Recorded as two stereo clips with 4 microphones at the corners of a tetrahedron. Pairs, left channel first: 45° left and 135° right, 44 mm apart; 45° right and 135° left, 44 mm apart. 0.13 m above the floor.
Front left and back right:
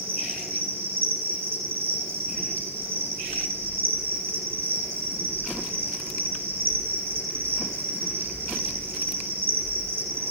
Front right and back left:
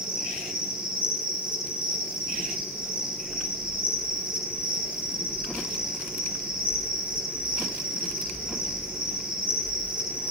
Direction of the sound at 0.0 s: 170° right.